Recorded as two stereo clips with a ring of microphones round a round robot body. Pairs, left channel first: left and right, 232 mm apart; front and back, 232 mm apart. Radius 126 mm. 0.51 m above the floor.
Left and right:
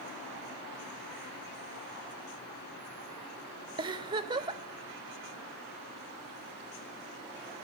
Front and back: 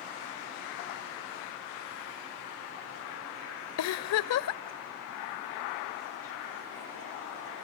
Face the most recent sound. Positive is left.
turn(degrees=-15)